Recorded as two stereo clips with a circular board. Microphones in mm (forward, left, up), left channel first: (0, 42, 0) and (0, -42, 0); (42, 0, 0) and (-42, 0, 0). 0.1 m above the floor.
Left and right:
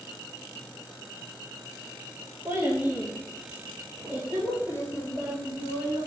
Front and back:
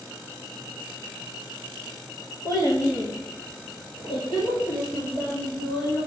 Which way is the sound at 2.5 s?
30° right.